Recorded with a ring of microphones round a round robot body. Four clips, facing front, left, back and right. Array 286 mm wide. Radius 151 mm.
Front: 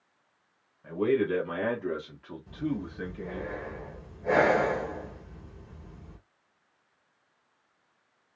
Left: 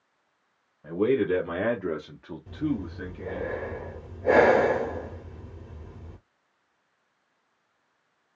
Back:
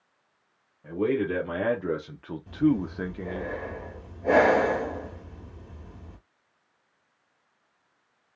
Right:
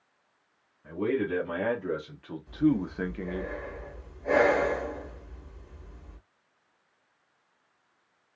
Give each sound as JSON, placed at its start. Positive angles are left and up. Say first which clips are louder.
{"t": 0.8, "sound": "a man speaking", "louder": "left 5 dB, even", "azimuth_deg": 110, "distance_m": 1.6}
{"t": 2.5, "sound": "breathing", "louder": "right 4 dB, back 9 dB", "azimuth_deg": 130, "distance_m": 2.0}